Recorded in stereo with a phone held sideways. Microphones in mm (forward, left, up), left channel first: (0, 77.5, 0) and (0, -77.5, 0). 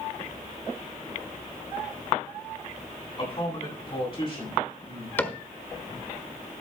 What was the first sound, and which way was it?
A man speaking, 30° left (ahead or behind).